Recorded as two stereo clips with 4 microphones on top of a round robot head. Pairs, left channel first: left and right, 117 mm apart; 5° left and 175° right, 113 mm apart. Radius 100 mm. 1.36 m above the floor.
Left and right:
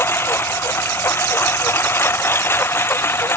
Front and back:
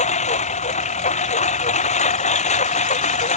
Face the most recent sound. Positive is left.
turn(degrees=20)